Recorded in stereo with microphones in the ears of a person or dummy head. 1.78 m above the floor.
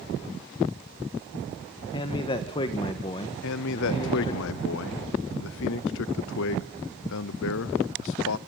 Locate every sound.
1.9 s a man speaking: 25° left (ahead or behind), 1.5 m
3.4 s a man speaking: 65° left (ahead or behind), 0.8 m